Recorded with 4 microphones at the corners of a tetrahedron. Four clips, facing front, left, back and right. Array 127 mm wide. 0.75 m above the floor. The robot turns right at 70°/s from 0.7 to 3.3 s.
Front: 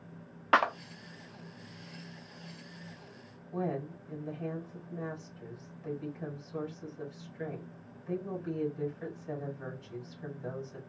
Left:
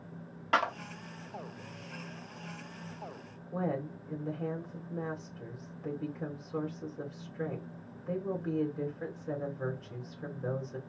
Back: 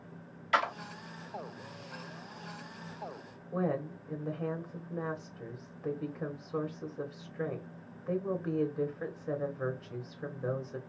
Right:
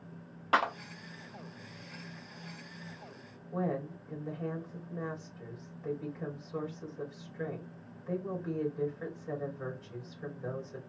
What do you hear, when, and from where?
0.5 s a clap: 10° right, 1.1 m
3.5 s a woman speaking: 160° left, 2.5 m